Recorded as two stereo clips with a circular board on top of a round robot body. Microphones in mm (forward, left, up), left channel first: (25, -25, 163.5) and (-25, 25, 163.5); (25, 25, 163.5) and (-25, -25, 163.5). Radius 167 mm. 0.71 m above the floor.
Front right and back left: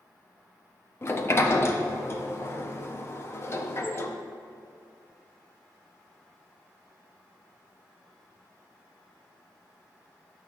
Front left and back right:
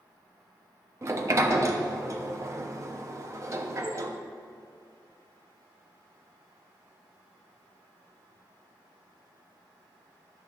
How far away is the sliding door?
About 1.0 m.